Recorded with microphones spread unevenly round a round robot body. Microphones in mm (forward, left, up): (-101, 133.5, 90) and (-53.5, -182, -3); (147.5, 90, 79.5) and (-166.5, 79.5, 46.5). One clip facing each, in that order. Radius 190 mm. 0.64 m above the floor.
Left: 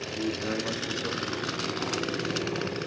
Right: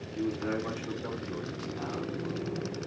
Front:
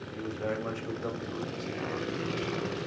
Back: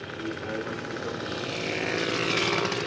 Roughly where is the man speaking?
Ahead.